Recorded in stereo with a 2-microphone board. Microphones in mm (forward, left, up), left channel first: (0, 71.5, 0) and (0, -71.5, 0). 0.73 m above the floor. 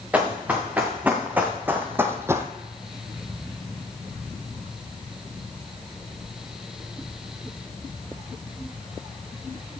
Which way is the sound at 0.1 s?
10° right (ahead or behind).